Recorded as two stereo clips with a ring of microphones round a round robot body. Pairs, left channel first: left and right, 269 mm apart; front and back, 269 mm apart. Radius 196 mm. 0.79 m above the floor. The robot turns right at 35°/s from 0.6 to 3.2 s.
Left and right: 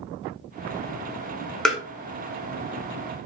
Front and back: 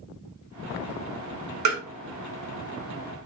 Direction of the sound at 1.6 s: Straight behind.